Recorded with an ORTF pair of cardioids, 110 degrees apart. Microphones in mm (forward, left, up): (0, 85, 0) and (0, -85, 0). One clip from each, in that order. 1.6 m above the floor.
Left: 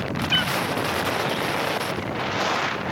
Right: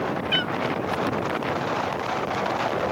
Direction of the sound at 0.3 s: 10° left.